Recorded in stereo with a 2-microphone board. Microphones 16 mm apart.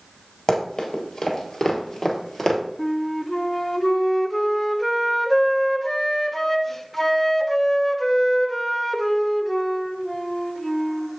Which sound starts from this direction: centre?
A flute, at 2.8 s.